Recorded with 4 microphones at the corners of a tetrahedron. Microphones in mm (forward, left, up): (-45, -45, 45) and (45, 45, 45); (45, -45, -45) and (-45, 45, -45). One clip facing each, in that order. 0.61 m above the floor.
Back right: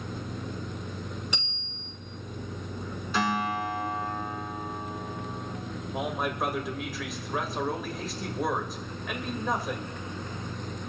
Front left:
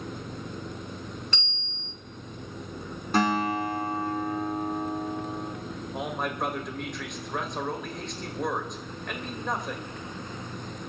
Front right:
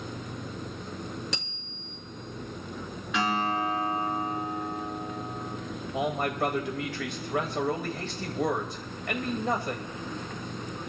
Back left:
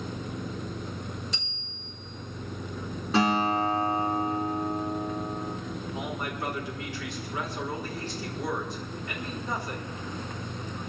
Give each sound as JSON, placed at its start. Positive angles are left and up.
{"t": 1.3, "sound": "a bicycle bell", "azimuth_deg": -60, "distance_m": 5.0}
{"t": 3.1, "sound": "a guitar", "azimuth_deg": 80, "distance_m": 5.0}
{"t": 5.9, "sound": "a man speaking", "azimuth_deg": -50, "distance_m": 2.5}